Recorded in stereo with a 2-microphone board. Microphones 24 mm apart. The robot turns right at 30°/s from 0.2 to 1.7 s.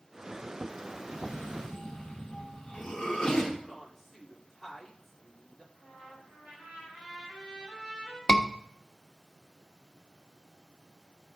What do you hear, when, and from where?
1.1 s a cough: 60° left (ahead or behind), 2.5 m; by 3.5 s 40° left (ahead or behind), 2.5 m
3.6 s a woman speaking: 5° right (ahead or behind), 2.5 m
5.7 s a trumpet: 55° right (ahead or behind), 4.5 m
8.3 s a scream: 35° left (ahead or behind), 0.9 m